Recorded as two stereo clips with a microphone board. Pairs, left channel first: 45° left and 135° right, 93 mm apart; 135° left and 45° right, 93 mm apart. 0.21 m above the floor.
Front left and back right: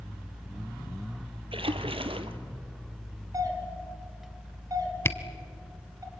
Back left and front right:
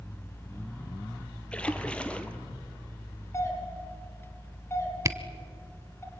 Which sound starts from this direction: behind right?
A splash, at 1.5 s.